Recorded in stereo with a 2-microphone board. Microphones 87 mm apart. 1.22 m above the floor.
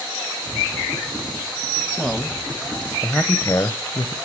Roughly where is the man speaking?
Centre.